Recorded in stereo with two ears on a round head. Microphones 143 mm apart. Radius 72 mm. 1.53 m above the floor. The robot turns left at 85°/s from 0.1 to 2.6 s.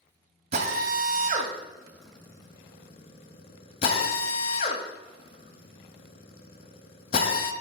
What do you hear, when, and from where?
0.5 s a drill: 40° right (ahead or behind), 1.4 m; by 7.5 s 35° left (ahead or behind), 1.4 m